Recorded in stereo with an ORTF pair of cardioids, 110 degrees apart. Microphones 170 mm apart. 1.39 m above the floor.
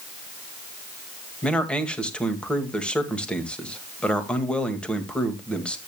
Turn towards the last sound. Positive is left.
turn(degrees=5)